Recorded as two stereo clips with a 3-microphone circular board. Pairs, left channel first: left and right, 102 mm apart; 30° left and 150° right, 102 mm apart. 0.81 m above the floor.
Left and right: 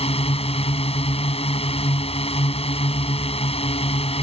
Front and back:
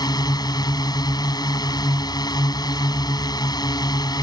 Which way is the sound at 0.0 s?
80° left.